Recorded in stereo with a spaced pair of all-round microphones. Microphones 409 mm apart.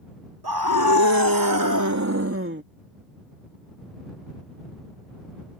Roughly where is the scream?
Right.